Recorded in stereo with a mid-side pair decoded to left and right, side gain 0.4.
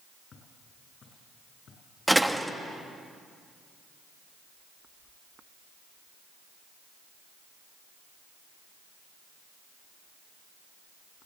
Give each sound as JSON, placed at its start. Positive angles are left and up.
{"t": 0.3, "sound": "footsteps", "azimuth_deg": 60, "distance_m": 7.0}
{"t": 2.1, "sound": "a door slam", "azimuth_deg": -5, "distance_m": 1.3}